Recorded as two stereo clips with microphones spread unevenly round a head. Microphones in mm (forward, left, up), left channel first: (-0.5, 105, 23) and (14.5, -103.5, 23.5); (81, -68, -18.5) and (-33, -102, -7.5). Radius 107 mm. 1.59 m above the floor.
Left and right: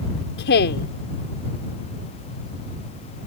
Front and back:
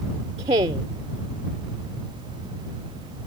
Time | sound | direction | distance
0.4 | a woman speaking | 135° left | ?